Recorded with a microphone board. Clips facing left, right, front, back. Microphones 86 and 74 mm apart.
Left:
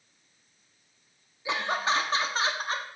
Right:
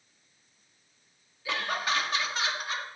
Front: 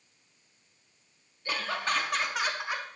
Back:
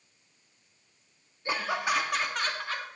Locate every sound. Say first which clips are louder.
1.4 s laughter: left 3 dB, back 2 dB; 140° left, 0.8 m; by 2.9 s 60° left, 0.9 m